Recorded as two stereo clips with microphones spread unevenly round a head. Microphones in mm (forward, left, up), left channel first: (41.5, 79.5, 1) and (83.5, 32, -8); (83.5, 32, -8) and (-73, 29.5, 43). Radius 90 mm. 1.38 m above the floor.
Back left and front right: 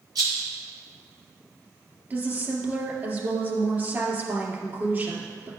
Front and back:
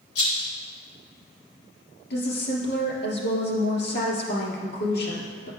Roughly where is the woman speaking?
Ahead.